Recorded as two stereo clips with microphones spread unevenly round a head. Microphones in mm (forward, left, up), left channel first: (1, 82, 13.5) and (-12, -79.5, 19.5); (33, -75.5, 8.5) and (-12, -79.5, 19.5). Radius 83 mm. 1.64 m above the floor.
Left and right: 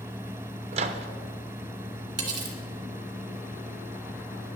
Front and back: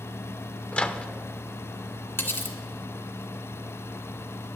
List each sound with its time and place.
0.7 s a microwave: 70° right, 0.7 m
2.2 s cutlery clinking: 30° right, 1.9 m